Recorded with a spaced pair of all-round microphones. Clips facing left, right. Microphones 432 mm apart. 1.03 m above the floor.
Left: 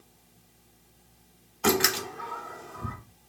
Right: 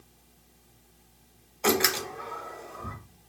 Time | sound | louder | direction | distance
1.6 | a door slam | even | 25° left (ahead or behind) | 0.7 m